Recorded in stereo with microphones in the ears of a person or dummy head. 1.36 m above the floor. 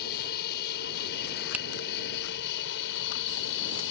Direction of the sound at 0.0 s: 50° left (ahead or behind).